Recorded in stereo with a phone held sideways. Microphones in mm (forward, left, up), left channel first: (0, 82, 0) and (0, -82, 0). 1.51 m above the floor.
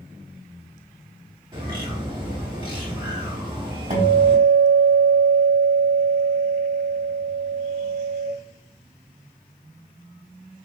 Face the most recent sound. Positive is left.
turn(degrees=-45)  # may be behind; listen again after turning